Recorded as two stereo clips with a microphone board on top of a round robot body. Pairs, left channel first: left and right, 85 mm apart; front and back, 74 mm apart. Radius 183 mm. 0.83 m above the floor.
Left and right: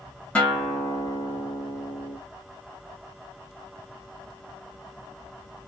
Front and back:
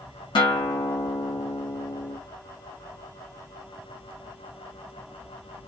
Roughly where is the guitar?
Ahead.